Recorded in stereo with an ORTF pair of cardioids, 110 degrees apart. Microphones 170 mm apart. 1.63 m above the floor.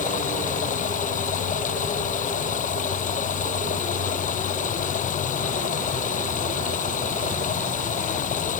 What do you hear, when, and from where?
0.0 s running water: 50° left